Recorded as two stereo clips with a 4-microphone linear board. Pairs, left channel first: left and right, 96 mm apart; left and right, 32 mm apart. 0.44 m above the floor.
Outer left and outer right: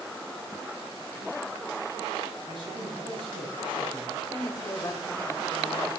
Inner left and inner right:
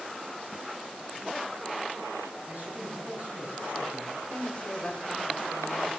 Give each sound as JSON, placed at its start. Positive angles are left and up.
{"t": 2.5, "sound": "a man speaking", "side_deg": -50, "distance_m": 3.0}
{"t": 4.2, "sound": "a woman speaking", "side_deg": 30, "distance_m": 1.8}